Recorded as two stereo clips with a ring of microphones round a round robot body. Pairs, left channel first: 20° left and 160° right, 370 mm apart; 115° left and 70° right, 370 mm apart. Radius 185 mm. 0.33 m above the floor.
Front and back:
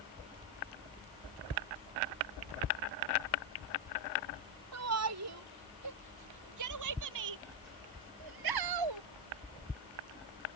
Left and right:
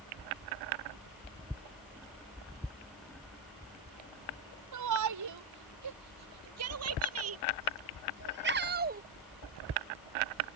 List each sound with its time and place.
4.7 s a shout: 110° right; by 9.0 s 135° right